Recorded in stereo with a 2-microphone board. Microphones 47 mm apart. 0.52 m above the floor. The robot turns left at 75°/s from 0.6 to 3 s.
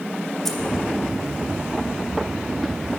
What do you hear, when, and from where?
0.5 s keys jangling: 5° left (ahead or behind), 0.7 m